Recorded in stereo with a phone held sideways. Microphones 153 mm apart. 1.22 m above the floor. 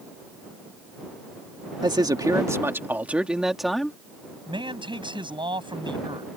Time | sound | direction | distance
1.8 | a man speaking | 30° right (ahead or behind) | ?
4.5 | a man speaking | 30° right (ahead or behind) | ?